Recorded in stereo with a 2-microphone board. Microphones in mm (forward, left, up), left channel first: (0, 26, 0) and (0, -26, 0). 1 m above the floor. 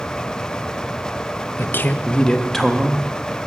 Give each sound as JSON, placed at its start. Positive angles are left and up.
{"t": 1.6, "sound": "a man speaking", "side_deg": 55, "distance_m": 0.6}